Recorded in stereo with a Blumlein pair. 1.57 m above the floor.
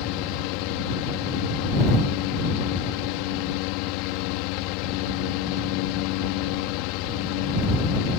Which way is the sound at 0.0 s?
45° left.